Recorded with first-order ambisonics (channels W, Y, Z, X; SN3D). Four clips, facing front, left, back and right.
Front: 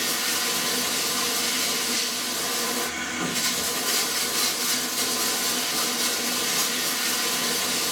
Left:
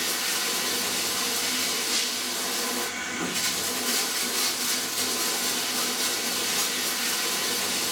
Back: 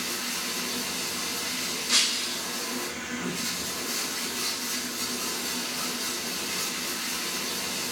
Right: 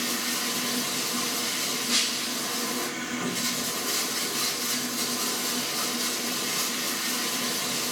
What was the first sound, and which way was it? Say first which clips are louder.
Running water: left 1 dB, front 6 dB; 40° left.